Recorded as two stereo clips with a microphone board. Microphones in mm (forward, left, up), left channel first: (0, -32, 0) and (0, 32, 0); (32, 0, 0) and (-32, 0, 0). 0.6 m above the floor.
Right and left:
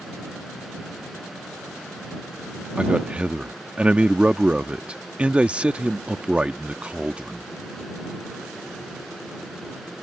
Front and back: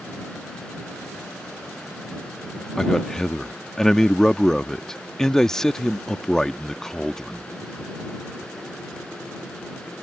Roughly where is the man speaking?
Ahead left.